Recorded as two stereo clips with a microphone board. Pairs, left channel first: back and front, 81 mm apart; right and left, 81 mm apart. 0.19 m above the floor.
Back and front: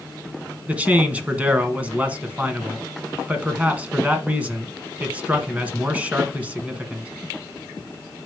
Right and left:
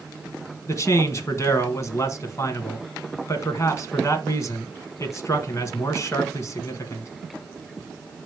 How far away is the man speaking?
About 1.4 m.